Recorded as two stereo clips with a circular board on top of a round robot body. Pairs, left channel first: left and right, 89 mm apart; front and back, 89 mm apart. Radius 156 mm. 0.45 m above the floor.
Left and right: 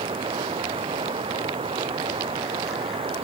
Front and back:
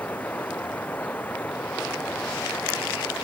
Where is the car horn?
I don't hear a car horn.